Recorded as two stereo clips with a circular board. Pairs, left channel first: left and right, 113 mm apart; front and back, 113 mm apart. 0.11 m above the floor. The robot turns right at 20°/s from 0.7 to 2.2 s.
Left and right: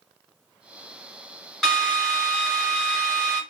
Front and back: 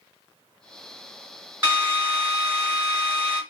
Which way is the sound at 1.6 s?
Straight behind.